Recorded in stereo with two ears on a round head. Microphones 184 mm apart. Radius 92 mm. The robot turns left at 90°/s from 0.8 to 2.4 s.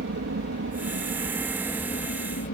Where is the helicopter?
110° right; by 2.5 s 105° left.